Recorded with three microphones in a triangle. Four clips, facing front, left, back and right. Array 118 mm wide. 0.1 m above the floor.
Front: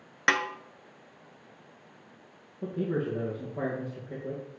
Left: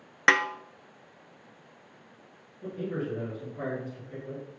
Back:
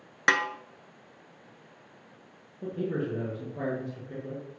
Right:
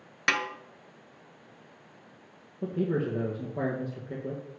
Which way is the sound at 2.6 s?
85° right.